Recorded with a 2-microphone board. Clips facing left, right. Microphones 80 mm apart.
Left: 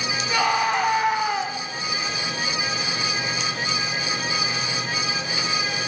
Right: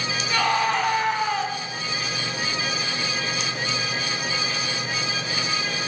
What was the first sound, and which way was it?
A scream, 5° left (ahead or behind).